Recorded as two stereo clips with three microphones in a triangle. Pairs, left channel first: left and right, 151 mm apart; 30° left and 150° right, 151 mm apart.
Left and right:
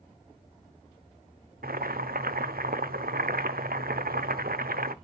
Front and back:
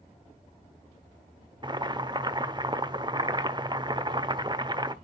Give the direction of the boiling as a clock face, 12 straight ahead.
3 o'clock.